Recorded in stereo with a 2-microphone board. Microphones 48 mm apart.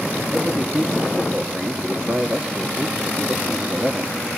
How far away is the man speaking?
About 2.0 m.